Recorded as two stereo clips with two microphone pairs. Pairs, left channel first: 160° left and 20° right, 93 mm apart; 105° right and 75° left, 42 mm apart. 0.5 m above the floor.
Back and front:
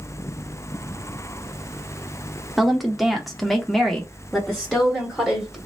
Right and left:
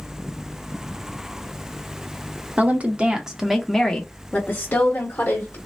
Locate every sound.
2.6 s a woman speaking: 65° left, 0.9 m; by 5.6 s 115° right, 1.2 m